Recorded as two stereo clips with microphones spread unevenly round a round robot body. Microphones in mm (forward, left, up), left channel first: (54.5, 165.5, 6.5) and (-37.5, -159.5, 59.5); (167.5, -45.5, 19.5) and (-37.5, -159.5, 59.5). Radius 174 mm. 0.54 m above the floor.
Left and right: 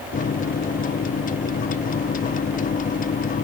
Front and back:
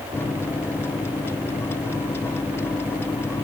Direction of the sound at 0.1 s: 85° left.